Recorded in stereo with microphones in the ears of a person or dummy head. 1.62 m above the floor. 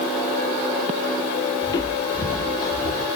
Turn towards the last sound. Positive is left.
turn(degrees=25)  # may be behind; listen again after turning